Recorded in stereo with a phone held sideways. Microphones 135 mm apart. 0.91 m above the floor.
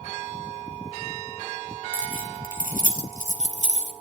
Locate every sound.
1.9 s keys jangling: 90° right, 2.5 m; by 3.9 s 65° right (ahead or behind), 2.5 m